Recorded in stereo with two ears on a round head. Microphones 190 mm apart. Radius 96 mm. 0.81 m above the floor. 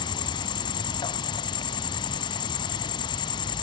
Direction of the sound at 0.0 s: 20° left (ahead or behind).